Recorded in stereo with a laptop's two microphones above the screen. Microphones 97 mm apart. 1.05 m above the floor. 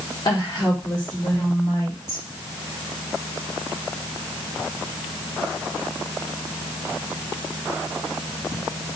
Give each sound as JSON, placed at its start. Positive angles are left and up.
{"t": 0.2, "sound": "a woman speaking", "side_deg": 45, "distance_m": 1.5}